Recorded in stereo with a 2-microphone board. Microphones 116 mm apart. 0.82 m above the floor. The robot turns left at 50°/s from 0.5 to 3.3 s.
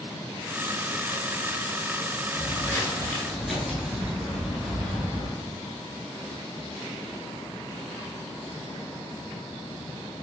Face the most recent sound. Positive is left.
turn(degrees=-30)  # may be behind; listen again after turning